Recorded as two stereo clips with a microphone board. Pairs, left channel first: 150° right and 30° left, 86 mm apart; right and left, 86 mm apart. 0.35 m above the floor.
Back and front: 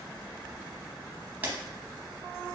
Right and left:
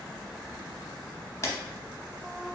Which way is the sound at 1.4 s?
40° right.